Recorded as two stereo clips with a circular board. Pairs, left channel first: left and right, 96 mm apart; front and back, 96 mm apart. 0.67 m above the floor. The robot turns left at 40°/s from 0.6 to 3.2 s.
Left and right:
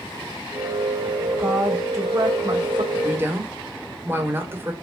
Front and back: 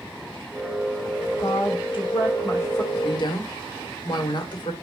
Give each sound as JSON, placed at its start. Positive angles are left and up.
{"t": 1.4, "sound": "a woman speaking", "azimuth_deg": -10, "distance_m": 3.0}
{"t": 2.9, "sound": "a woman speaking", "azimuth_deg": -15, "distance_m": 1.9}